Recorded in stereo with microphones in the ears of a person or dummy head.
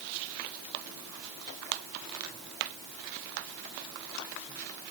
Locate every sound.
Only background noise.